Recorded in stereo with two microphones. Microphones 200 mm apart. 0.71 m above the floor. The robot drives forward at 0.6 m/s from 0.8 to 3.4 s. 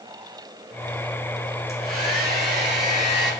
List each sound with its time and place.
1.7 s a hair dryer: 45° right (ahead or behind), 2.5 m; by 3.3 s 65° right (ahead or behind), 2 m